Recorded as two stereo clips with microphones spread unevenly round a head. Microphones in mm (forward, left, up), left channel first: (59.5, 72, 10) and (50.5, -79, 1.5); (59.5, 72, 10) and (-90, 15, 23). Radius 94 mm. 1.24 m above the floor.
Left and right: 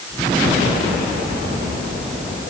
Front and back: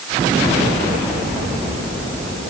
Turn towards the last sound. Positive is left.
No sound to turn to.